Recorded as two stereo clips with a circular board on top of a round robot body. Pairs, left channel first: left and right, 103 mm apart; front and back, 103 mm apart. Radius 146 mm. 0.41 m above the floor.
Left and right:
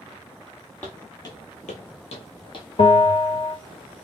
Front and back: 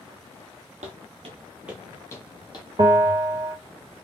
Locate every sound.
0.8 s footsteps: 170° left, 0.9 m; by 2.7 s 45° left, 1.1 m
2.8 s a bell: 125° left, 1.0 m